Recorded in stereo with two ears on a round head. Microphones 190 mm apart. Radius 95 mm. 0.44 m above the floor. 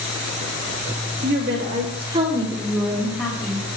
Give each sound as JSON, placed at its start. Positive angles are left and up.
{"t": 1.2, "sound": "a woman speaking", "side_deg": -55, "distance_m": 1.4}